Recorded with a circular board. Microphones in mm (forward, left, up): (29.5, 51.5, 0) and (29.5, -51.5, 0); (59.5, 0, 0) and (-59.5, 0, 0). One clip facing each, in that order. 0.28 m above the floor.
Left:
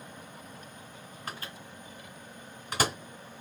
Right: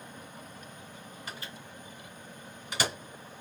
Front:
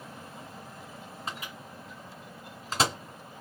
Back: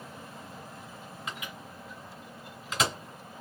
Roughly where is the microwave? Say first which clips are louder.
Left 4 dB, front 1 dB; ahead left.